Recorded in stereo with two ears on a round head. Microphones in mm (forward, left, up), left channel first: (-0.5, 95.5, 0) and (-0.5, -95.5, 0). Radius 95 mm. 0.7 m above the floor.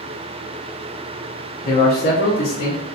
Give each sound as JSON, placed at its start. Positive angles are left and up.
{"t": 1.6, "sound": "a man speaking", "side_deg": 35, "distance_m": 0.7}